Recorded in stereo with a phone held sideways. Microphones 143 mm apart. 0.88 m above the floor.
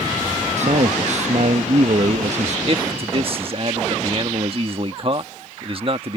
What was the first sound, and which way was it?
A man speaking, 55° right (ahead or behind).